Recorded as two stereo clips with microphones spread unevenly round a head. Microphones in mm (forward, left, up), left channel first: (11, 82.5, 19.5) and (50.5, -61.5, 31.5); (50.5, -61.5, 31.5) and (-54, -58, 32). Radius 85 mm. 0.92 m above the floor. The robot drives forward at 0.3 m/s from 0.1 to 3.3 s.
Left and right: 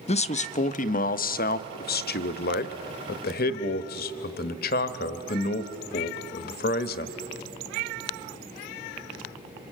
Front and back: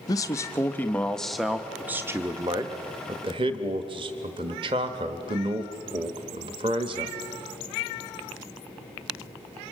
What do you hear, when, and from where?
0.1 s a man speaking: 60° left, 0.9 m; by 7.2 s 130° left, 0.9 m